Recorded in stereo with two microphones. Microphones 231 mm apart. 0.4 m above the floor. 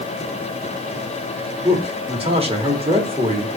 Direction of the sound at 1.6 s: 25° right (ahead or behind).